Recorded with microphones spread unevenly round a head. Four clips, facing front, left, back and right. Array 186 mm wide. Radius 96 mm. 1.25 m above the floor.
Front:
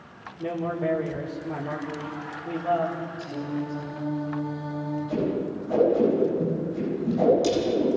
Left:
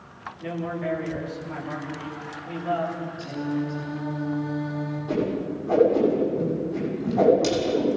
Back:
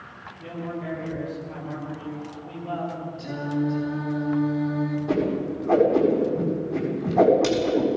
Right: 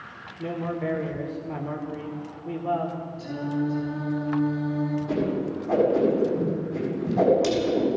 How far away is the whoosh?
About 7 m.